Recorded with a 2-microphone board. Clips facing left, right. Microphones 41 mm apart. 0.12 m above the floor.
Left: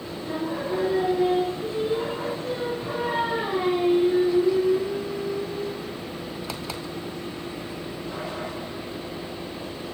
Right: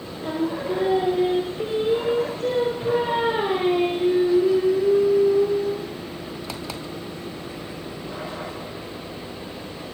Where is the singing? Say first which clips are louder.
Right 4 dB; 65° right (ahead or behind), 3 m.